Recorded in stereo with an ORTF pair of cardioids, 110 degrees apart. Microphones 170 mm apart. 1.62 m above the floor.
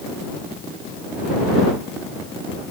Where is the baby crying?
No baby crying in this recording.